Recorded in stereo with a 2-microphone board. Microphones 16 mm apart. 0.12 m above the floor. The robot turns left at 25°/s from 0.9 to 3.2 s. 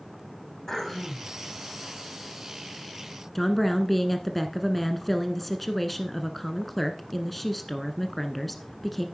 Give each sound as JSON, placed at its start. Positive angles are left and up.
{"t": 0.7, "sound": "throat clearing", "side_deg": 30, "distance_m": 7.0}
{"t": 3.4, "sound": "a woman speaking", "side_deg": 5, "distance_m": 1.1}